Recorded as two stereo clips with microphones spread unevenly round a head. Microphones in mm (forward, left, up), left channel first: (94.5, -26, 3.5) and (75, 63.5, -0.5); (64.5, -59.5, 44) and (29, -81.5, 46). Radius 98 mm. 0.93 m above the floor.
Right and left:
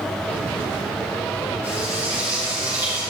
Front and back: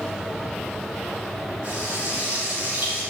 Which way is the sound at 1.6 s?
160° left.